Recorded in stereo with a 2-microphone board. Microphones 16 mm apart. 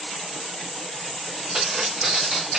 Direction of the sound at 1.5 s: 45° right (ahead or behind).